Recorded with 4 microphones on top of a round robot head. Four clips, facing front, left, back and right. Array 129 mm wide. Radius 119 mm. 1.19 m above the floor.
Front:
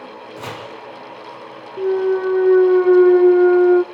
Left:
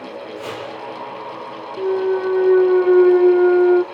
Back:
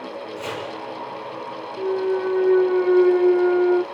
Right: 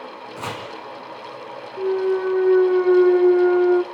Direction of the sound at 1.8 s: 25° left.